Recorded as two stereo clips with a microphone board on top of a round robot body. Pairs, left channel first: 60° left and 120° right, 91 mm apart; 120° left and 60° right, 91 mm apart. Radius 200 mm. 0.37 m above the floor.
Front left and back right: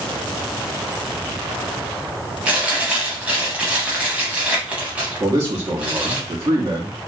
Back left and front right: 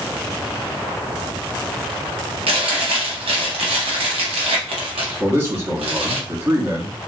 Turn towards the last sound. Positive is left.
turn(degrees=-100)